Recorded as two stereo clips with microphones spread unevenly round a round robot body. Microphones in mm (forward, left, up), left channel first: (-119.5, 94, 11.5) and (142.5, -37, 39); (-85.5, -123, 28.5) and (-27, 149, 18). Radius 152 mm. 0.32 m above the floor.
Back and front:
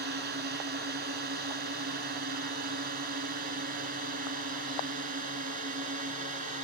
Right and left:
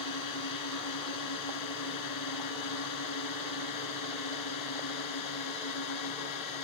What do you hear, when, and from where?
0.0 s a drone: 85° right; by 6.6 s 95° right